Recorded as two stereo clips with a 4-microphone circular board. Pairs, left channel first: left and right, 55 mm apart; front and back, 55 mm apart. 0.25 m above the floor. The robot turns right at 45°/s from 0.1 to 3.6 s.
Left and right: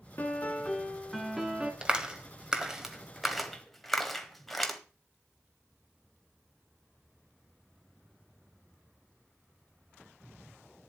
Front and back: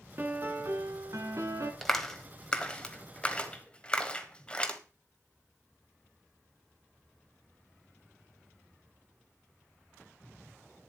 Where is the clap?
70° right, 1.3 m; by 4.8 s 10° left, 1.3 m.